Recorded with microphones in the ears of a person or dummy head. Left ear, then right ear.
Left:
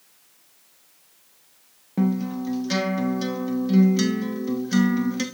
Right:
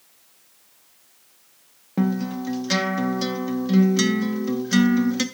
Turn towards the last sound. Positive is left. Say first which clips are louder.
# even
turn(degrees=-10)  # may be behind; listen again after turning